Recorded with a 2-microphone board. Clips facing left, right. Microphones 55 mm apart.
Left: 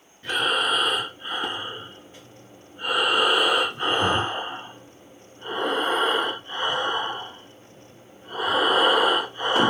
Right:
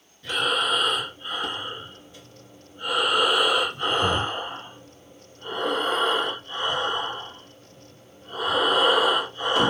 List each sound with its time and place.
0.2 s breathing: 35° left (ahead or behind), 1.7 m